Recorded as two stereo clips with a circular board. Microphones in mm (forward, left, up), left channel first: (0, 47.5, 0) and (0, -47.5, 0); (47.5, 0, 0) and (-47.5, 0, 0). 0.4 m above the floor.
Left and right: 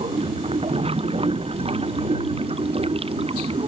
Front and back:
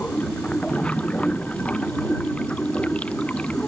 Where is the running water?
80° right.